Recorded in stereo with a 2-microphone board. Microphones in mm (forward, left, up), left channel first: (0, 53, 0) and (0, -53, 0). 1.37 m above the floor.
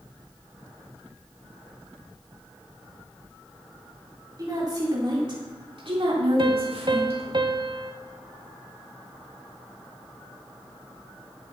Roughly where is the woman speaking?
Right.